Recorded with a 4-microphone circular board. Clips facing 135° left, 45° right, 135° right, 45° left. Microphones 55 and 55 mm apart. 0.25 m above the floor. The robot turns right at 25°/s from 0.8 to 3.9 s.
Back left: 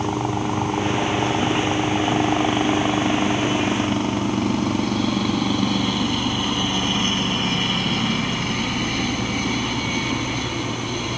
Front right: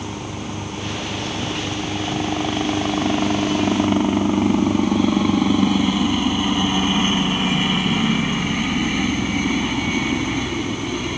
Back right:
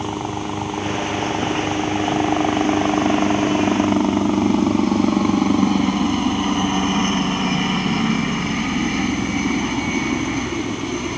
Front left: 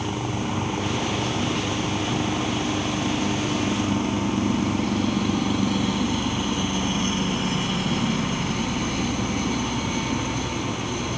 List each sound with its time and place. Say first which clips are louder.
0.0 s a helicopter: back left 7 dB, back right 3 dB; 165° left; by 11.2 s 115° right